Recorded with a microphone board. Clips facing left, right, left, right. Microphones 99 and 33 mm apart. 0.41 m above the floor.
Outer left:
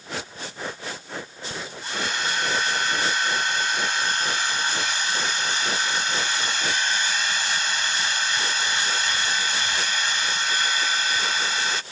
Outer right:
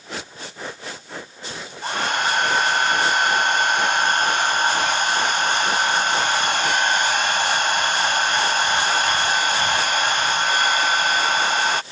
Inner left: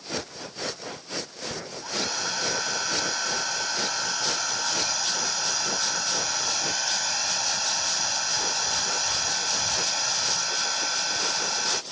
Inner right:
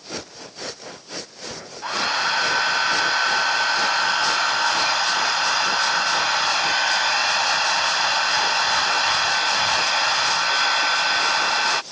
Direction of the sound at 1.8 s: 55° right (ahead or behind).